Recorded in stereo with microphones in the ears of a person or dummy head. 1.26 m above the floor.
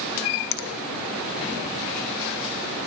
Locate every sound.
0.5 s a finger snap: 65° left (ahead or behind), 0.7 m